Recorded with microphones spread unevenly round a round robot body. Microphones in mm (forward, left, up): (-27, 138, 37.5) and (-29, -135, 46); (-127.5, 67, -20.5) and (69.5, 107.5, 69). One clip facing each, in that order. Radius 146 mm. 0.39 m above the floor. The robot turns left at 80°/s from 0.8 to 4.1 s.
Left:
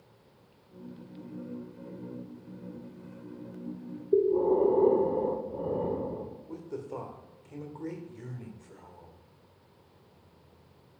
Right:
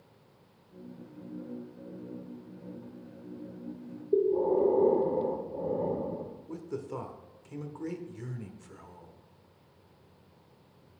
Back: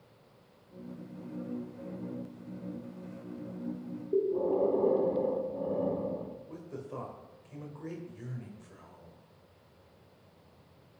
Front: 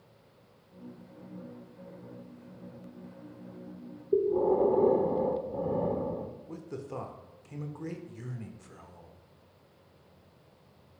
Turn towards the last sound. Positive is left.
turn(degrees=-30)